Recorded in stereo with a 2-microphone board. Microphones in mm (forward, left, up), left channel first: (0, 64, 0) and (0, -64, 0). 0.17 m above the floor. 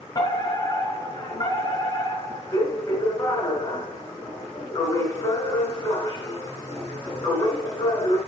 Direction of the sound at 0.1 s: 35° left (ahead or behind).